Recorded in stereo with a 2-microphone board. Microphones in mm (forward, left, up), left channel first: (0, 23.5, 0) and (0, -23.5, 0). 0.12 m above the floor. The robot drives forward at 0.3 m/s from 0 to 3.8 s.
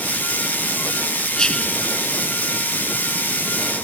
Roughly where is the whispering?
Centre.